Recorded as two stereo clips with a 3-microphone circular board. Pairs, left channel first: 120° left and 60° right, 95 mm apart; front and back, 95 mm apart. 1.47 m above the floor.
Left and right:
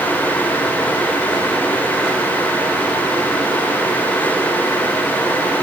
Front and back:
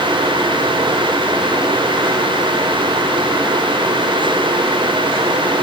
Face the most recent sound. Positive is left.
No sound to turn to.